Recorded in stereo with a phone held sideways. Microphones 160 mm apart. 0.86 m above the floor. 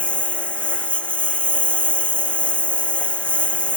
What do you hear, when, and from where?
0.0 s a lawn mower: 5° left (ahead or behind)